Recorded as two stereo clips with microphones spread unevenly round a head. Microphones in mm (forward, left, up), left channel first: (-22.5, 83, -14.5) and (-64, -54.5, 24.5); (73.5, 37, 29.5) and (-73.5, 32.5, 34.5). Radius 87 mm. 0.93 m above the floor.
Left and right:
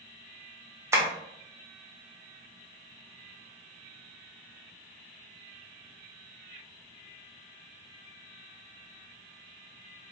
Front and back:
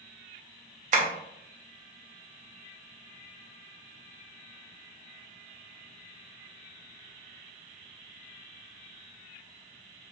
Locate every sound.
0.9 s tapping: 175° left, 0.7 m